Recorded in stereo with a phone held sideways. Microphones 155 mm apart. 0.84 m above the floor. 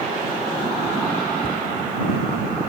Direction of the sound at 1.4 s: 85° left.